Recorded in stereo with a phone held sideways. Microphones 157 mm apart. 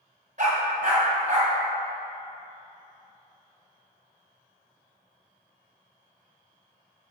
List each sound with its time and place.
0.4 s a dog barking: 55° right (ahead or behind), 1.9 m